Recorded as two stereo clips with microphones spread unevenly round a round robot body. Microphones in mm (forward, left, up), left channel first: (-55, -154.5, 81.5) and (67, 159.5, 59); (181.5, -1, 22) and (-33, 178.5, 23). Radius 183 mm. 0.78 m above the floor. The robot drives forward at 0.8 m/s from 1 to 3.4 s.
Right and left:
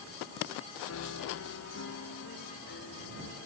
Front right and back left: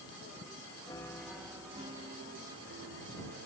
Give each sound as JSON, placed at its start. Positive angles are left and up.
{"t": 0.9, "sound": "a piano", "azimuth_deg": -110}